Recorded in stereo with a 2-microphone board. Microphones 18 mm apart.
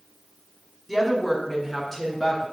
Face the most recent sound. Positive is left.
turn(degrees=15)  # may be behind; listen again after turning